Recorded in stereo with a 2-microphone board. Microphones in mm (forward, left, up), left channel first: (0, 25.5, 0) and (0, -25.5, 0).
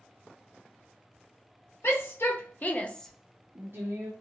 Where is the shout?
55° left (ahead or behind), 1.4 m; by 4.1 s 70° right (ahead or behind), 0.9 m.